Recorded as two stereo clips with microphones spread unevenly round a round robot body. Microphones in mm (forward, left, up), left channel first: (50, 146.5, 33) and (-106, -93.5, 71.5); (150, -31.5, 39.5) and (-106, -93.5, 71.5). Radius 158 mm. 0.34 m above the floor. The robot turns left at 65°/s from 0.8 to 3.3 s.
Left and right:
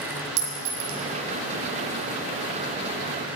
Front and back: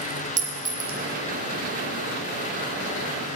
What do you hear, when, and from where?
0.4 s a clink: 100° right, 1.7 m; by 1.0 s 115° right, 1.7 m